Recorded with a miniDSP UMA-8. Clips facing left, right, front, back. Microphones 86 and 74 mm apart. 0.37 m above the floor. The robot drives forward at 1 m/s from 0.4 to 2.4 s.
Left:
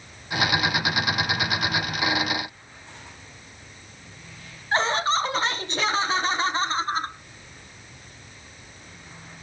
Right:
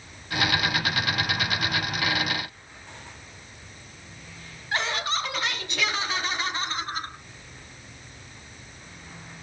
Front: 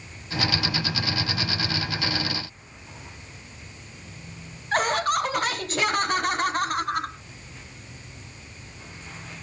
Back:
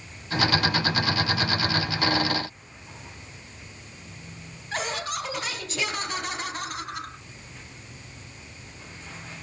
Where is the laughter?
35° left, 3 m.